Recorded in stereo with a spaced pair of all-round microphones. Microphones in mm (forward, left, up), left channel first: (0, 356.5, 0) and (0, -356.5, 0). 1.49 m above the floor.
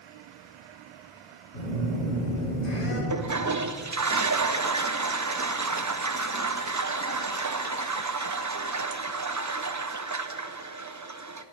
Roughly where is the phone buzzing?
Left.